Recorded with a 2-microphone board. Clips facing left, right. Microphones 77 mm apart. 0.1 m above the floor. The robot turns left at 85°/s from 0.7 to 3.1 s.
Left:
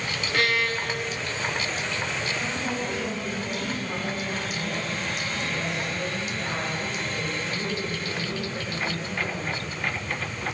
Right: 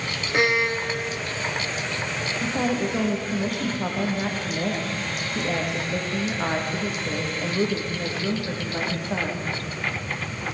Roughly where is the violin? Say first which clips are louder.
Right 4 dB; ahead right.